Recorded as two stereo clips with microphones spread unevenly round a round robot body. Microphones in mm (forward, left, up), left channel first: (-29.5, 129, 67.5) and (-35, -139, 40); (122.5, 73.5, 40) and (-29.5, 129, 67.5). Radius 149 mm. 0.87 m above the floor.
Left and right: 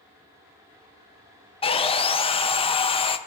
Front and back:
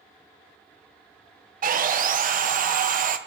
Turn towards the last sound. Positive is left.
turn(degrees=160)